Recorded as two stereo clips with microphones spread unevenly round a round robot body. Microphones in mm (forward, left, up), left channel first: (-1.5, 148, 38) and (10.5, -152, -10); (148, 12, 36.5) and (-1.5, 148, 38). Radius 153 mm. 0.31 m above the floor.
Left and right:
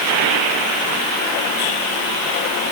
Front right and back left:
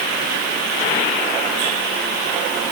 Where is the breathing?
No breathing in this recording.